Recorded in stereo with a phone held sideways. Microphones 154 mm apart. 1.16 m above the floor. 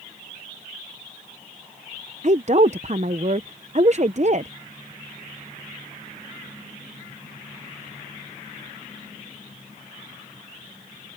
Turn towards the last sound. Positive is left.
turn(degrees=-50)  # may be behind; listen again after turning